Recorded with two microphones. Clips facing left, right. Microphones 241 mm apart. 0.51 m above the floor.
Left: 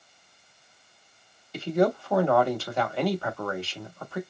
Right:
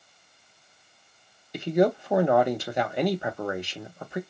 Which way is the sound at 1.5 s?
15° right (ahead or behind).